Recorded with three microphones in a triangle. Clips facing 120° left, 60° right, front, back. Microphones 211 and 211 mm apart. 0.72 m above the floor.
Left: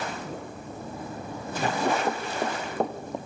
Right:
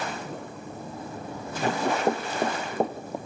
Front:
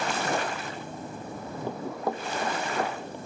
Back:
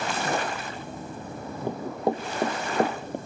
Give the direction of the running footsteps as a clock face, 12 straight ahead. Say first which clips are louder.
Right 2 dB, back 5 dB; 4 o'clock.